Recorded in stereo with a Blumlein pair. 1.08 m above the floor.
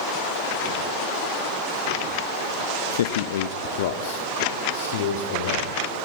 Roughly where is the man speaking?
Ahead left.